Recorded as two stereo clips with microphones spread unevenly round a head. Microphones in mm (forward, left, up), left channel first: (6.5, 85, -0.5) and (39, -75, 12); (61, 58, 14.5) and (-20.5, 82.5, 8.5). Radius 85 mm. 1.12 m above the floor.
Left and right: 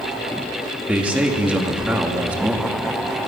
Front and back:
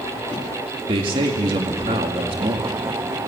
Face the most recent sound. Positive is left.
turn(degrees=-160)